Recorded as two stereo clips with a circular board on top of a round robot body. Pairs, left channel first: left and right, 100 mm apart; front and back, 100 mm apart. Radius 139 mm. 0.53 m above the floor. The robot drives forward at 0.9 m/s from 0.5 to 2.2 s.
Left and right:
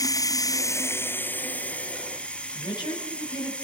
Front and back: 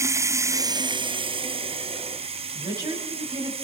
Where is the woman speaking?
130° left, 5.5 m.